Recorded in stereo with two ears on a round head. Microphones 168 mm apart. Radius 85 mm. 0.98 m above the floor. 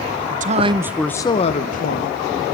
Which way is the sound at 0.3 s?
50° right (ahead or behind).